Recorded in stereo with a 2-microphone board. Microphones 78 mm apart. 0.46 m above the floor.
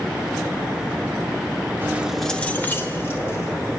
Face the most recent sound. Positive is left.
turn(degrees=35)  # may be behind; listen again after turning